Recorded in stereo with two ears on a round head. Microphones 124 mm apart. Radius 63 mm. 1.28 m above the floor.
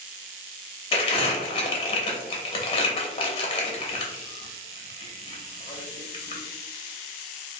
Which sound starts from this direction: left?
Crumpling, at 0.9 s.